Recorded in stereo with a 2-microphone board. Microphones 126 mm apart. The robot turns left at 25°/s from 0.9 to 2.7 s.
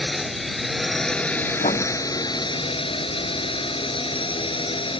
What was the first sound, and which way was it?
A drone, straight behind.